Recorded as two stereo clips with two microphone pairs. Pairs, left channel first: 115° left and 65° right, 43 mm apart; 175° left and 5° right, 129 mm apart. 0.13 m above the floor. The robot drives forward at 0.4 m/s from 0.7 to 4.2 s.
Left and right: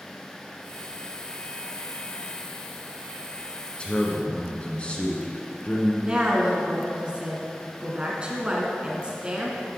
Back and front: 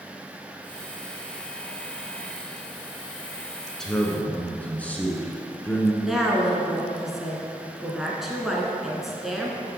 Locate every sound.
3.8 s a man speaking: 90° left, 1.2 m; by 5.9 s 110° left, 1.3 m
6.0 s a woman speaking: 90° right, 1.2 m